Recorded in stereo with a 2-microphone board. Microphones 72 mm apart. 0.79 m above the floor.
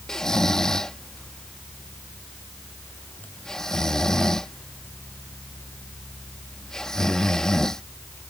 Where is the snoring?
5° left (ahead or behind).